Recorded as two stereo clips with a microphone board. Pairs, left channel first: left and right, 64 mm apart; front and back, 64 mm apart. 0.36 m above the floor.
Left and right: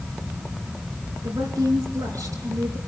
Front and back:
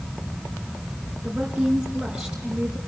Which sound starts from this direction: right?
A woman speaking, at 1.2 s.